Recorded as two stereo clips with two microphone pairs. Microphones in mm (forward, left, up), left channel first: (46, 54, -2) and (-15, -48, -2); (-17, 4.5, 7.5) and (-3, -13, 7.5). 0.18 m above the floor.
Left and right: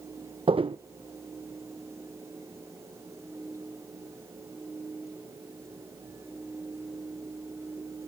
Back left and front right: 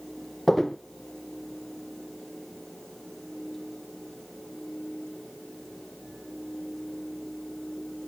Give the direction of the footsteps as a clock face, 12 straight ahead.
5 o'clock.